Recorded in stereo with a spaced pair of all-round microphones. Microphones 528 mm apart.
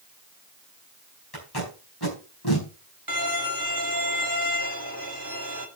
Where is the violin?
35° right (ahead or behind), 1.7 m.